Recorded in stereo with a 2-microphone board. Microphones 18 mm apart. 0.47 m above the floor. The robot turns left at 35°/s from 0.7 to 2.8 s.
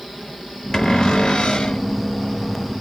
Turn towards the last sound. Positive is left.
turn(degrees=65)